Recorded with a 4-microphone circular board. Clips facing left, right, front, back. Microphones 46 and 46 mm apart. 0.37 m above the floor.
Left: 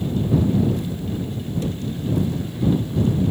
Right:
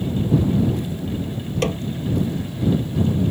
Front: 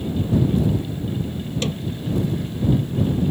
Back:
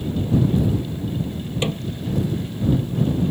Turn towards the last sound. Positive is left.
turn(degrees=-110)